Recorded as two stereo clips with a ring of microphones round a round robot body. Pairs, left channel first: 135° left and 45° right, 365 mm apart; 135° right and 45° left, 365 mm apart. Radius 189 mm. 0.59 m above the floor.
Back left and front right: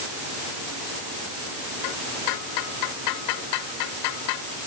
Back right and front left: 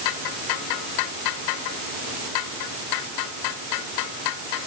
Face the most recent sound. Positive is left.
No sound to turn to.